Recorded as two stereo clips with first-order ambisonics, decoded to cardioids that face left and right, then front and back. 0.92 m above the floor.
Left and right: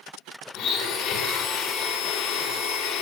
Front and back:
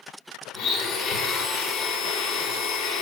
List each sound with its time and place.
0.5 s a blender: 45° left, 1.5 m